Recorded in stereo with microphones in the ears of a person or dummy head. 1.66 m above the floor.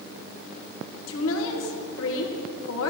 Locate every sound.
1.1 s a woman speaking: 85° left, 1.9 m